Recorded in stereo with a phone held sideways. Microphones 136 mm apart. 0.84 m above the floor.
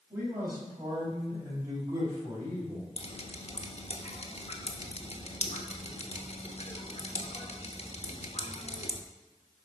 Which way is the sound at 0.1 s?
15° right (ahead or behind).